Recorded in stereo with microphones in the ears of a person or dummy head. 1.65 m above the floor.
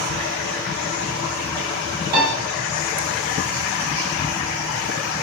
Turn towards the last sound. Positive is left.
turn(degrees=-25)  # may be behind; listen again after turning